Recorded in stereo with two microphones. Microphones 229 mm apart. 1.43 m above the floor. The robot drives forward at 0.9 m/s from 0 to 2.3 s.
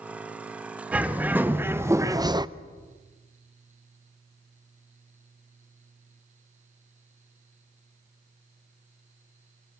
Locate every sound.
0.9 s a bird: 5° right (ahead or behind), 1.7 m; by 2.5 s 20° right (ahead or behind), 0.6 m